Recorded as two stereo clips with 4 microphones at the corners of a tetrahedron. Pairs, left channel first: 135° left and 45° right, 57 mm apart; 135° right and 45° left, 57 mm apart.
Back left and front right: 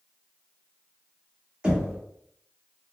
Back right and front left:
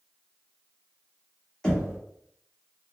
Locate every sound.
1.6 s knocking: 85° right, 0.9 m